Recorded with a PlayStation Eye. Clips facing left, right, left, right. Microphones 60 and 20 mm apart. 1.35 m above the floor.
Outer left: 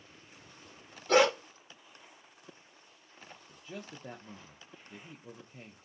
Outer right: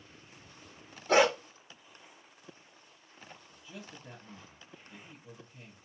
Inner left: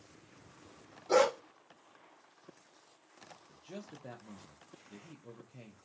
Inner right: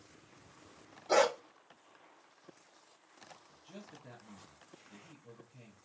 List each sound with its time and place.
1.1 s a dog barking: 10° right (ahead or behind), 1.2 m
3.5 s a man speaking: 55° left (ahead or behind), 0.7 m